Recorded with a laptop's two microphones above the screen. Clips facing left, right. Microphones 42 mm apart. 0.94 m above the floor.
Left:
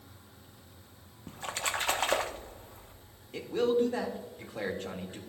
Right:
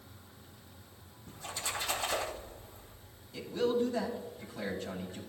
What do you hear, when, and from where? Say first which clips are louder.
1.3 s a splash: left 5 dB; 60° left (ahead or behind), 1.1 m
3.3 s a man speaking: left 3 dB; 55° left (ahead or behind), 2 m